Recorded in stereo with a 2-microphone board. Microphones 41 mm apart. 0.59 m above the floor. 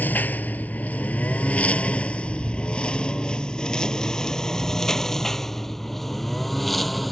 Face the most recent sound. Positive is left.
turn(degrees=0)  # may be behind; listen again after turning